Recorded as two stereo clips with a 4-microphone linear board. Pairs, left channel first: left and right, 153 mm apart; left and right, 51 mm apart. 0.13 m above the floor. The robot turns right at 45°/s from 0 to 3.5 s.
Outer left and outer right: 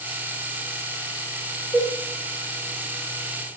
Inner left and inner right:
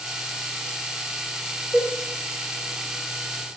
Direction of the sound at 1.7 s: 25° right (ahead or behind).